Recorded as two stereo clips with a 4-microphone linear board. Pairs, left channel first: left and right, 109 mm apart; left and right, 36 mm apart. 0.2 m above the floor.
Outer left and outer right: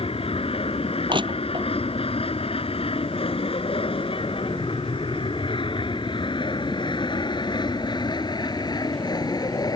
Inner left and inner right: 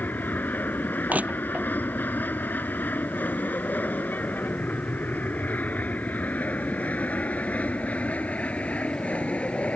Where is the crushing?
50° right (ahead or behind).